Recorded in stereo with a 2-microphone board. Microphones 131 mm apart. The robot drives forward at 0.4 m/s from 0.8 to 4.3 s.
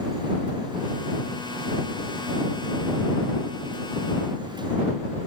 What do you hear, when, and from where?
Only background noise.